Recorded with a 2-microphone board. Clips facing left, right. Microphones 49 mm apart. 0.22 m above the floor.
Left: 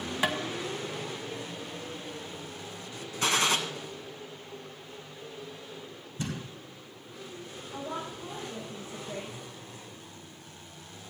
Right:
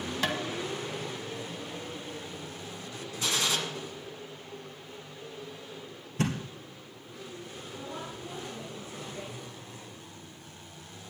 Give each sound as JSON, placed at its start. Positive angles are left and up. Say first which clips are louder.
{"t": 0.2, "sound": "tapping", "louder": "left 2 dB", "side_deg": 15, "distance_m": 1.2}
{"t": 3.2, "sound": "a gunshot", "louder": "left 4 dB", "side_deg": 45, "distance_m": 1.4}
{"t": 6.2, "sound": "a thud", "louder": "right 6 dB", "side_deg": -75, "distance_m": 2.5}
{"t": 7.7, "sound": "a woman speaking", "louder": "left 4 dB", "side_deg": 70, "distance_m": 6.5}